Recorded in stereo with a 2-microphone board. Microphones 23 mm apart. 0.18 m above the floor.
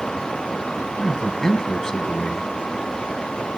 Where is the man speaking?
25° left (ahead or behind), 1.0 m.